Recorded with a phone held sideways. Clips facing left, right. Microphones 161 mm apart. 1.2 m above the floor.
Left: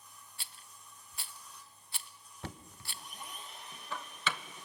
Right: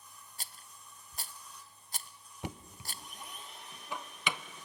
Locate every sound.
0.4 s a rattle: 40° right (ahead or behind), 0.6 m
2.4 s knocking: 15° right (ahead or behind), 0.6 m